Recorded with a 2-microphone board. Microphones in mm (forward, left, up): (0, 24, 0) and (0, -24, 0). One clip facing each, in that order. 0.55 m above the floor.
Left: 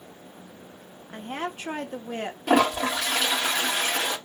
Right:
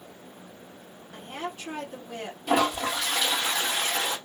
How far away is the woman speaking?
About 0.7 m.